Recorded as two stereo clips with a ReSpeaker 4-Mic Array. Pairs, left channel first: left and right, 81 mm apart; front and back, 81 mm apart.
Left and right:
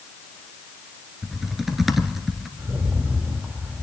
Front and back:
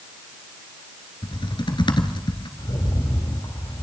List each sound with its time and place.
1.2 s typing on a keyboard: straight ahead, 1.4 m
2.6 s a rattle: 20° right, 3 m